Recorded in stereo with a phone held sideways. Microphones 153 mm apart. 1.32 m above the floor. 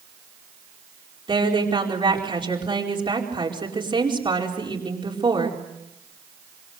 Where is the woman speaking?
35° right (ahead or behind), 4.5 m.